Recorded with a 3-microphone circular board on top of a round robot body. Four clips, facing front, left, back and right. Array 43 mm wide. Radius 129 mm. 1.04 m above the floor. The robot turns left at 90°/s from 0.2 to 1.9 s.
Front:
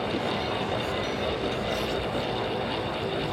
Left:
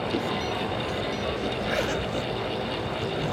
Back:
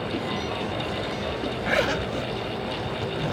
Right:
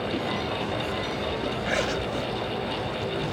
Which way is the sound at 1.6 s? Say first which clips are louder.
Right 1 dB, back 4 dB; 165° right.